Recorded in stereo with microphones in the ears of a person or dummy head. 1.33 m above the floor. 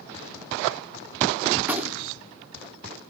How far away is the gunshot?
About 0.9 m.